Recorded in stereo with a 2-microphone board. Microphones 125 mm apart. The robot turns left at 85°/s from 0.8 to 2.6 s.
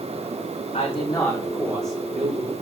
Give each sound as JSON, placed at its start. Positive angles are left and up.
{"t": 0.7, "sound": "a man speaking", "azimuth_deg": 65, "distance_m": 5.0}